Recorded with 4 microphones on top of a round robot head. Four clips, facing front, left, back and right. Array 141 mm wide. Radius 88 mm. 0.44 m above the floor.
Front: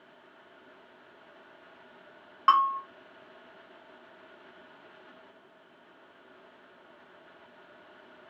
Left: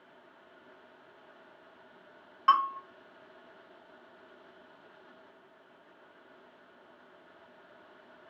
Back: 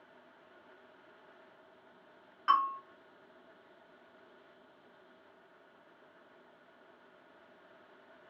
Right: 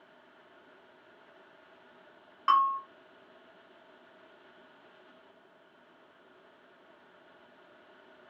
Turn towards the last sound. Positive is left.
turn(degrees=5)